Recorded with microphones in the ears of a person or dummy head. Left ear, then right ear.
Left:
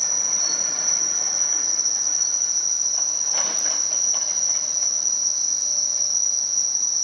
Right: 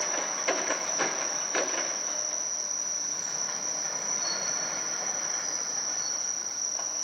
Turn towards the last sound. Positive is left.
turn(degrees=55)  # may be behind; listen again after turning